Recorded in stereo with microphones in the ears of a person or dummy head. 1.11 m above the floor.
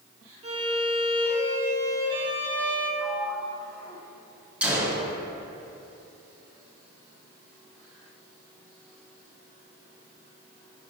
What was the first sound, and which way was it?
A violin, 35° right (ahead or behind).